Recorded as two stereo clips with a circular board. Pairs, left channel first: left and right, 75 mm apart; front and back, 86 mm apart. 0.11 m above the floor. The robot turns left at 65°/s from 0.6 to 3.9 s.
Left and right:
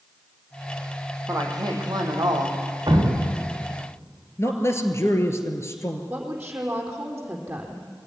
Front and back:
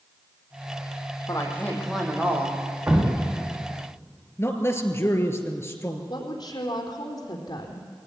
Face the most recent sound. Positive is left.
turn(degrees=-20)